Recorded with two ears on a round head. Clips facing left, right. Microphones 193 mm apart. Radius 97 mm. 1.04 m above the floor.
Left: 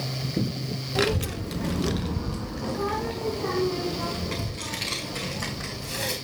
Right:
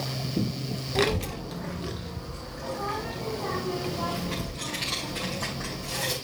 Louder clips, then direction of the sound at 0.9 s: Left 1 dB; 5° left (ahead or behind).